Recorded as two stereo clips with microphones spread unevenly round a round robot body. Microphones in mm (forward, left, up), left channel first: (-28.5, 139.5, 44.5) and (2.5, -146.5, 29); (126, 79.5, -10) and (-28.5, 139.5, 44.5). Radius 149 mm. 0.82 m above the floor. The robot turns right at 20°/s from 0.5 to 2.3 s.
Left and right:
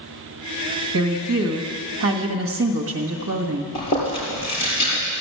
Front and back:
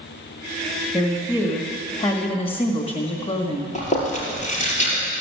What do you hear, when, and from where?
0.9 s a woman speaking: 85° right, 1.5 m; by 3.6 s 55° right, 1.5 m
3.8 s chewing: 25° left, 5.5 m